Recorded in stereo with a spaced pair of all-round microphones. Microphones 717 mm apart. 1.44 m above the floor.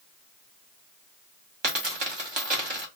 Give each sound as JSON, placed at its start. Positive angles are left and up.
{"t": 1.6, "sound": "a dropped coin", "side_deg": -35, "distance_m": 1.2}